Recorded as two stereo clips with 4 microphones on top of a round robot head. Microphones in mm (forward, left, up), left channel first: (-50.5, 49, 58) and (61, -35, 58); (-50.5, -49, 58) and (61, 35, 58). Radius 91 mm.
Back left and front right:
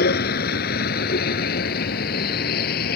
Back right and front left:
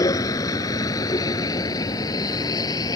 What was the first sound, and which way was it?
A vehicle, 150° left.